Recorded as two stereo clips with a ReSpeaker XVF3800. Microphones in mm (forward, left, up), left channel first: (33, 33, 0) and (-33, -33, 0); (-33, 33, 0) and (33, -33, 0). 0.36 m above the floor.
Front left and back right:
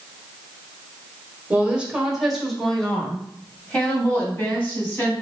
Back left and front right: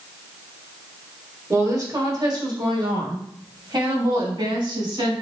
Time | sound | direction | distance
1.5 | a woman speaking | 70° right | 1.3 m